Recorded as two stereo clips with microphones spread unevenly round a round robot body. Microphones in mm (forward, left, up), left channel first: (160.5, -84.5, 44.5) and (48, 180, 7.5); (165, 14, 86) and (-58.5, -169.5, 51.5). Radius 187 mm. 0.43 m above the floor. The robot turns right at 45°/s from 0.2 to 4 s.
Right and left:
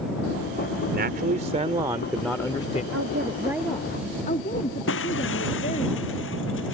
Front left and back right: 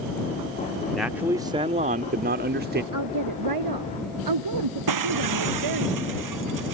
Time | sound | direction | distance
0.9 | a man speaking | 135° left | ?
2.9 | a woman speaking | 170° left | ?
4.9 | breaking glass | 130° right | ?